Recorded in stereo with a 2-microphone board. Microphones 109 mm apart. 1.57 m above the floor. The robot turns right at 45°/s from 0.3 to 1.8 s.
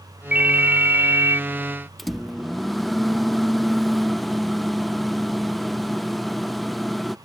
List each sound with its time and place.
0.3 s a ringtone: 10° right (ahead or behind); by 1.4 s 25° right (ahead or behind)
2.0 s a microwave: centre (ahead or behind)